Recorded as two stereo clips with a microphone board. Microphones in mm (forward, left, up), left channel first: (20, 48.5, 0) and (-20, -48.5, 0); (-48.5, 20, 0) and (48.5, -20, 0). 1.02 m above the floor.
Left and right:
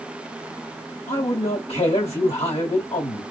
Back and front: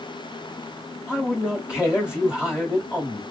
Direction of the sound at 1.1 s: 60° left.